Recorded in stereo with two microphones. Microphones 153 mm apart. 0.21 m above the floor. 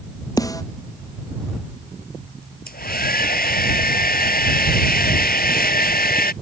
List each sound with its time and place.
0.4 s a snare drum: 20° left (ahead or behind)
2.7 s a hair dryer: 75° left (ahead or behind)